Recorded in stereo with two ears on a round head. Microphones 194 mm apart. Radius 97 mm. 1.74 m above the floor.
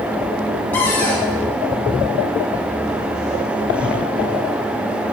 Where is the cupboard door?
10° left (ahead or behind), 2.5 m.